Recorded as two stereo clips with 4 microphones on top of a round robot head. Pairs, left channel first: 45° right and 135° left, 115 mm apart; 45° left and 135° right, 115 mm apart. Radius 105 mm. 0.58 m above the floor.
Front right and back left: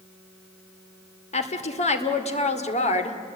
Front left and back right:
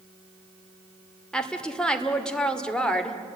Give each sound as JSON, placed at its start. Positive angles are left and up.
{"t": 1.3, "sound": "a woman speaking", "azimuth_deg": -40, "distance_m": 2.0}